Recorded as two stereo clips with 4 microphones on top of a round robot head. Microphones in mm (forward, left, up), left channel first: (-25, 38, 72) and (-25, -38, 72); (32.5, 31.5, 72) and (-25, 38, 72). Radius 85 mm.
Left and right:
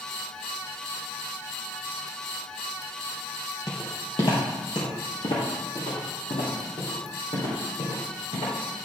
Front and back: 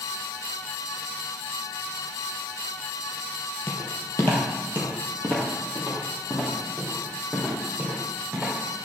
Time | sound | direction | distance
3.7 | footsteps | 30° left | 1.7 m